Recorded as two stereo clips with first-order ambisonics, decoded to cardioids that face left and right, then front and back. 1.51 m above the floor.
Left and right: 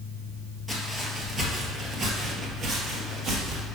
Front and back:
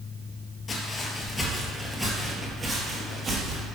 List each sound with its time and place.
0.7 s footsteps: 20° right, 1.6 m; by 3.6 s 130° right, 2 m